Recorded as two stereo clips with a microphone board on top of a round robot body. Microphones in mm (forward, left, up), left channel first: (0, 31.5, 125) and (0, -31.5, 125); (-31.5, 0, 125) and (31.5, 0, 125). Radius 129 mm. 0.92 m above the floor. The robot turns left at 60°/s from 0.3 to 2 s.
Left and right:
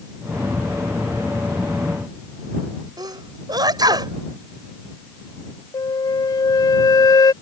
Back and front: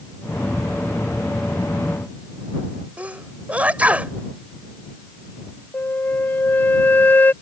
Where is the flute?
120° left.